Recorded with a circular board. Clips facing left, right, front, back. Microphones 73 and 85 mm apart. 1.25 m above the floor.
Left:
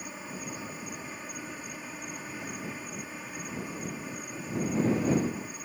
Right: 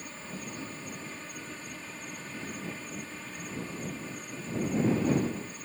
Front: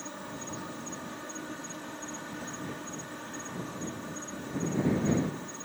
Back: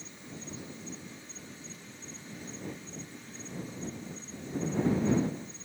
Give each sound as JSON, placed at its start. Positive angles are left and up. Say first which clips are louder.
{"t": 0.0, "sound": "an insect", "louder": "left 2 dB, front 6 dB", "azimuth_deg": 15}